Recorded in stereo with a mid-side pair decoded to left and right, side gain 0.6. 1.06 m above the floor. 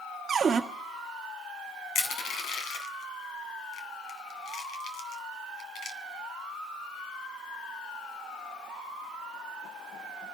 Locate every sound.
0.3 s a cupboard door: 30° right, 1.3 m
1.9 s crushing: 60° left, 2.5 m